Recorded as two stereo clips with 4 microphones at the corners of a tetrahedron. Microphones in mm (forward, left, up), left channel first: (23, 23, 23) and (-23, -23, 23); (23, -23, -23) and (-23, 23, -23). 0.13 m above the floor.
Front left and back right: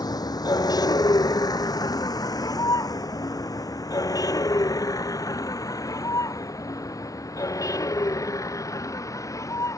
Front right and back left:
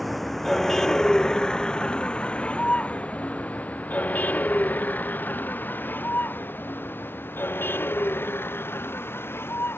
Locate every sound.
0.0 s a vehicle: 45° left; by 9.8 s 10° left